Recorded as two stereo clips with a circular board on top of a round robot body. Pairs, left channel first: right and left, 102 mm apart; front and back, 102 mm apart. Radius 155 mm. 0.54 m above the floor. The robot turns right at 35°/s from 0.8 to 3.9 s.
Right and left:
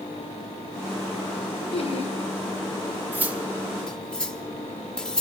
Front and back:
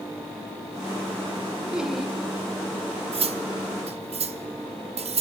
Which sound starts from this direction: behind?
Cutlery clinking, at 3.1 s.